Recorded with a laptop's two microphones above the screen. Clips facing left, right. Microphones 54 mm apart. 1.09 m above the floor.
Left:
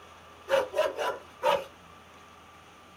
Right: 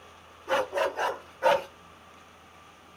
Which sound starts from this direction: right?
A dog barking, at 0.5 s.